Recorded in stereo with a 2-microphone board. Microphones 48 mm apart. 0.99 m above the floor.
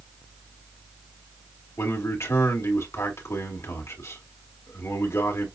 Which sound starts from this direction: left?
A man speaking, at 1.8 s.